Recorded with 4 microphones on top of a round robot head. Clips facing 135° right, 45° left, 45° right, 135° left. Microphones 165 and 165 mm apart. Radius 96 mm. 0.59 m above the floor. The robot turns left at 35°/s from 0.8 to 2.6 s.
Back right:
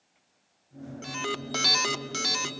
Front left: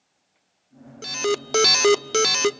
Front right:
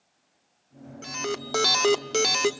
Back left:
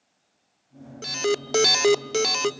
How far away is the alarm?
About 0.7 m.